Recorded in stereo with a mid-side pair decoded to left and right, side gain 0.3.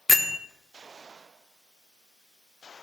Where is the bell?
30° left, 0.9 m.